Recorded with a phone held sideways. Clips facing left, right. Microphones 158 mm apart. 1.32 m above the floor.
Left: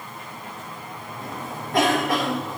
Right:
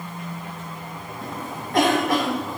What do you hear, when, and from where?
1.2 s a cough: centre (ahead or behind), 2.5 m